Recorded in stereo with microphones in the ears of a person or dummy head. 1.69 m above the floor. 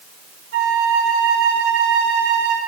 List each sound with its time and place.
0.5 s a flute: 75° right (ahead or behind), 6 m